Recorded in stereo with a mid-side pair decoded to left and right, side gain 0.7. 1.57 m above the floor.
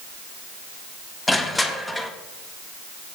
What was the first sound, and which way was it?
Crushing, 15° left.